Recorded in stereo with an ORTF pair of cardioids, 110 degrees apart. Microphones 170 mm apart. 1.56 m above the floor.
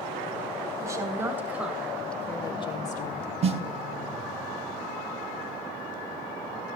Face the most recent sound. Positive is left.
turn(degrees=-35)